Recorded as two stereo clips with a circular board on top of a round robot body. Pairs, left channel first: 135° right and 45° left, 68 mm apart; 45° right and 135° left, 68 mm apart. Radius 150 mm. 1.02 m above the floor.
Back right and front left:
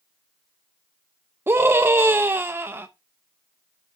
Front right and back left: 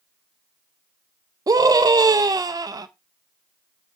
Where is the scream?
105° left, 0.7 m.